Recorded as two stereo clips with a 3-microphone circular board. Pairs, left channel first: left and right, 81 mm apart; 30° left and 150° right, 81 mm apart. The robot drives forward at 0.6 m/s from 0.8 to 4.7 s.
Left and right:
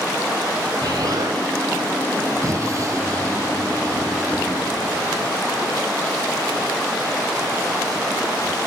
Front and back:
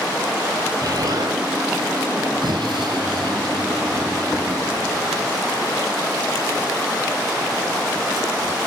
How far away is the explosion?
About 2 m.